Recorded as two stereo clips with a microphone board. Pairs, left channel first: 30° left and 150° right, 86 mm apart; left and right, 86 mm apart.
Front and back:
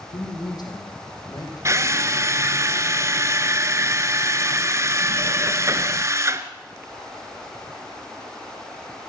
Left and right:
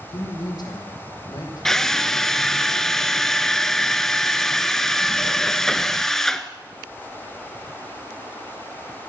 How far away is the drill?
About 0.9 m.